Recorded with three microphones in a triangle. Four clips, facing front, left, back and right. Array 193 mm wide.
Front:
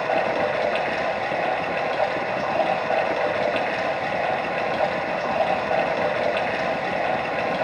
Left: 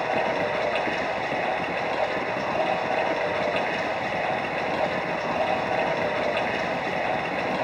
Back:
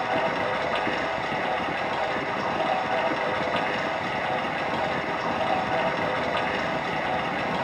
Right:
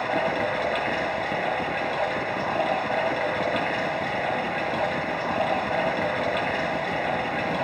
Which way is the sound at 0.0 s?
5° left.